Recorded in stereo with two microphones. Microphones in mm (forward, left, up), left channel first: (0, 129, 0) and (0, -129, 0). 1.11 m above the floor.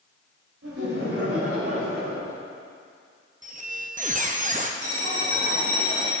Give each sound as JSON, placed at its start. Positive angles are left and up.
{"t": 0.6, "sound": "laughter", "side_deg": -65, "distance_m": 3.0}
{"t": 3.4, "sound": "a squeak", "side_deg": -30, "distance_m": 0.6}
{"t": 4.8, "sound": "a bell", "side_deg": 70, "distance_m": 1.8}